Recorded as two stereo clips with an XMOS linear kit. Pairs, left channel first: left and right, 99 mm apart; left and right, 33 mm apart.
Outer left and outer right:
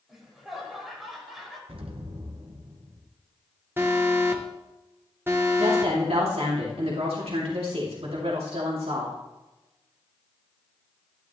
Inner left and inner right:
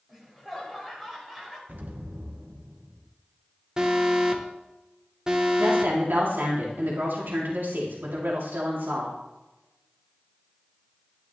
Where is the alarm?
20° right (ahead or behind), 1.2 m.